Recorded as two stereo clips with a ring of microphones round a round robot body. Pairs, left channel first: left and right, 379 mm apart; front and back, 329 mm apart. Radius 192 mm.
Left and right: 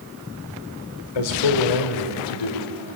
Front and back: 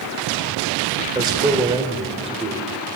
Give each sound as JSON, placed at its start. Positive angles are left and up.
{"t": 1.1, "sound": "a man speaking", "azimuth_deg": 100, "distance_m": 3.5}